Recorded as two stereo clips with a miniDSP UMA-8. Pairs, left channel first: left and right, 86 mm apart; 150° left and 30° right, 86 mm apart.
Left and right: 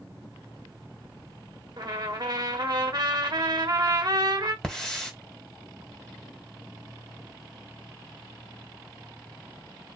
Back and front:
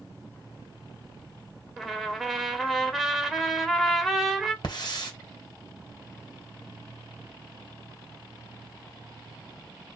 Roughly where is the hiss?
Behind.